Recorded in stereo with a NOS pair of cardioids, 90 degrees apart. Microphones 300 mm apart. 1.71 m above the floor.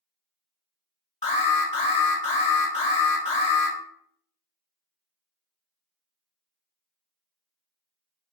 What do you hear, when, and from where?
1.2 s an alarm: 20° left, 1.7 m